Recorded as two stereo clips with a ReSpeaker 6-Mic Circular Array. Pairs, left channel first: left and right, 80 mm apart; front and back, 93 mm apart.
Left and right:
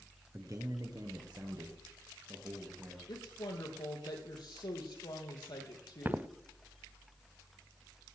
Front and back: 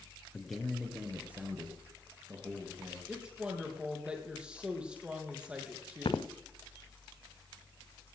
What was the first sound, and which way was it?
A man speaking, 75° right.